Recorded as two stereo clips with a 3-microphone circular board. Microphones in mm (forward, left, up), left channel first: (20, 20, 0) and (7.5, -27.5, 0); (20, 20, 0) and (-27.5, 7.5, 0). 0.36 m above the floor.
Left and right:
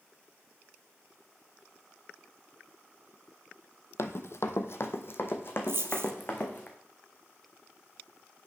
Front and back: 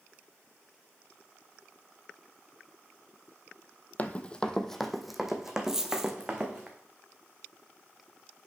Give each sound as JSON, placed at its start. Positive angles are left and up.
{"t": 4.0, "sound": "running footsteps", "azimuth_deg": 70, "distance_m": 0.6}
{"t": 5.7, "sound": "a dropped coin", "azimuth_deg": -85, "distance_m": 0.6}